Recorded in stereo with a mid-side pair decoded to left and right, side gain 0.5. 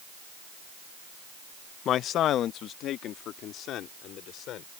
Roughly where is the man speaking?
Ahead left.